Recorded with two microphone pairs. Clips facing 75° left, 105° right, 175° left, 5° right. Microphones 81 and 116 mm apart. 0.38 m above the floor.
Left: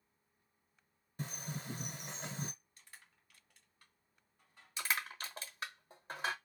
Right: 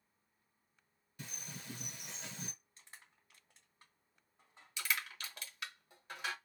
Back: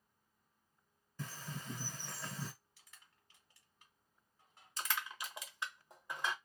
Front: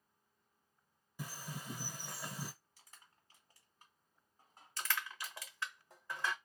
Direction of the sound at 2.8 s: 50° right.